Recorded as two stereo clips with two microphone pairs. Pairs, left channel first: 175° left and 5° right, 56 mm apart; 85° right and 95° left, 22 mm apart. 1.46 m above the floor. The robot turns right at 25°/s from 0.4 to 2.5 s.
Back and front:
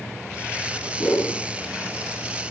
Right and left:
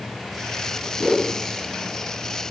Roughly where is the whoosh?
Left.